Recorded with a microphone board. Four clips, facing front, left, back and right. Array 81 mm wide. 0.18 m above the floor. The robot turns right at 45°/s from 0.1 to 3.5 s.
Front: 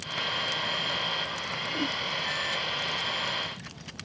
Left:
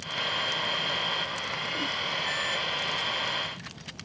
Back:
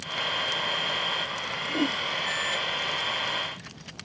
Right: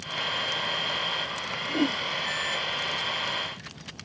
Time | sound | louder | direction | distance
1.7 | a whoosh | right 11 dB, back 6 dB | 125° right | ?